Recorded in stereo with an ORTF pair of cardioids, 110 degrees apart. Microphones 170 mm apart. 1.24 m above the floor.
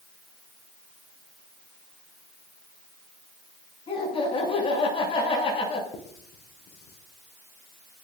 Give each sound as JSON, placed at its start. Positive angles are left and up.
{"t": 3.9, "sound": "laughter", "azimuth_deg": 35, "distance_m": 9.0}
{"t": 5.9, "sound": "writing", "azimuth_deg": 70, "distance_m": 4.5}